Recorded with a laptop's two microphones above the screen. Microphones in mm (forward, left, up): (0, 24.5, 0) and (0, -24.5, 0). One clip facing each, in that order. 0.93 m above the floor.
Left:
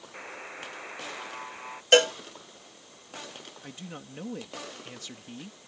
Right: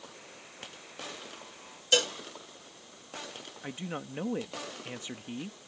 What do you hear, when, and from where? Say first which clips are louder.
0.1 s a buzzer: left 8 dB; 50° left (ahead or behind)
1.9 s a cowbell: left 8 dB; 50° left (ahead or behind)
3.6 s a man speaking: right 7 dB; 25° right (ahead or behind)